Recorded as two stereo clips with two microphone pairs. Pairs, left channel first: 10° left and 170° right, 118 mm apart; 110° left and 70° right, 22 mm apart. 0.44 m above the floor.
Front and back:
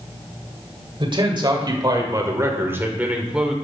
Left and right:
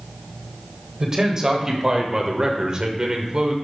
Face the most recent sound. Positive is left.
turn(degrees=-85)